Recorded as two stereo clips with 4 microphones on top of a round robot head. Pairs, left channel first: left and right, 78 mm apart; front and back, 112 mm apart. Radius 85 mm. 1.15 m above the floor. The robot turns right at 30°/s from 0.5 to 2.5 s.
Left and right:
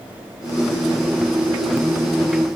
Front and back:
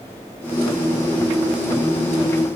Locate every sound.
Only background noise.